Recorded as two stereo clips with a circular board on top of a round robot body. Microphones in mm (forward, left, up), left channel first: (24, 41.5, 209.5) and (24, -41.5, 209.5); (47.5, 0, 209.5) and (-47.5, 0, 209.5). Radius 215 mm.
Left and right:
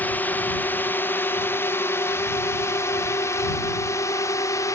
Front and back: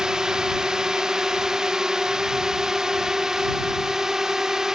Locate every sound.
0.0 s a drone: 110° left; by 4.8 s 100° left